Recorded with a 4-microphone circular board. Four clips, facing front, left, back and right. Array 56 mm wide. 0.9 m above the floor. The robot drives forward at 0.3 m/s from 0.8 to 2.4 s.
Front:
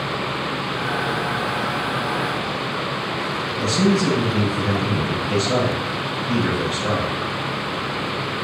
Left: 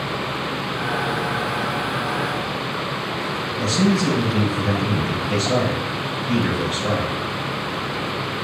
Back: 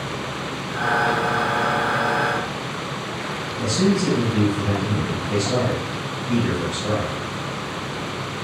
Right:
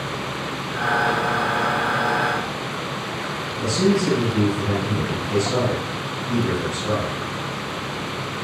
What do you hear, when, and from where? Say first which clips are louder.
3.6 s a man speaking: even, front 1 dB; 45° left, 4.5 m